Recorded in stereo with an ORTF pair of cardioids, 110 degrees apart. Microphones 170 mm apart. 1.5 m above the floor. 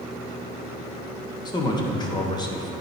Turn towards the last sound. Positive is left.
turn(degrees=25)